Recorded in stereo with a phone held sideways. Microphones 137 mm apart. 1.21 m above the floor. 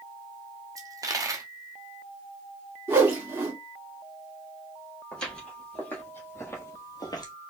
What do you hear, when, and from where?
0.8 s a dropped coin: 25° right (ahead or behind), 0.8 m
2.9 s a whoosh: 15° right (ahead or behind), 1.8 m
5.1 s footsteps: 5° left (ahead or behind), 2 m; by 7.3 s 30° left (ahead or behind), 1.3 m